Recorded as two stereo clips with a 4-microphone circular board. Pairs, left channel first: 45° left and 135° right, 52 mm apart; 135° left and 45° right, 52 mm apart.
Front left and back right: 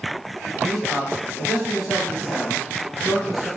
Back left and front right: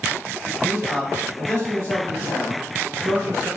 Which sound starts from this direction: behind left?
A man speaking, at 0.6 s.